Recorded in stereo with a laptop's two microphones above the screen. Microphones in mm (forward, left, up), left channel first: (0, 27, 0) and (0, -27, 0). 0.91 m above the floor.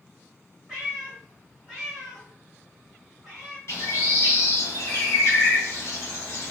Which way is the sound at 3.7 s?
60° left (ahead or behind).